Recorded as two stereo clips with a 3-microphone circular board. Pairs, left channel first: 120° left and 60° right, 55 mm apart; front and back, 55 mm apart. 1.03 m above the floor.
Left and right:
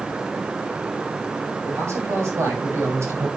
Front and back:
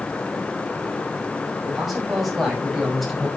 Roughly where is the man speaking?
Right.